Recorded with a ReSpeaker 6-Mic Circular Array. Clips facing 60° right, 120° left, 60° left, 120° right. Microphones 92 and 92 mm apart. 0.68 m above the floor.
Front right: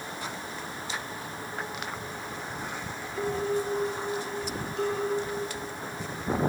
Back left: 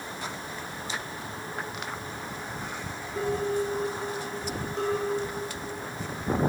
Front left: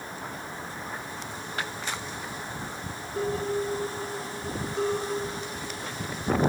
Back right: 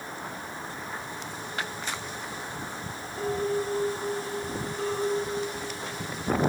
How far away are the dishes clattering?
About 6.5 m.